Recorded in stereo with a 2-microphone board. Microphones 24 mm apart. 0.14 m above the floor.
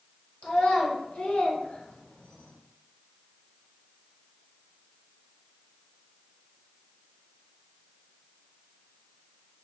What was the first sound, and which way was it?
A child speaking, 55° left (ahead or behind).